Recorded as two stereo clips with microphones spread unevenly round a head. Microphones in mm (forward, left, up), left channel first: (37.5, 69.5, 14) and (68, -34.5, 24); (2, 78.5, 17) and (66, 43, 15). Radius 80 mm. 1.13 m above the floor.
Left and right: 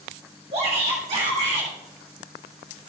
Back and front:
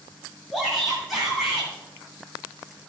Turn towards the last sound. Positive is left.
turn(degrees=-120)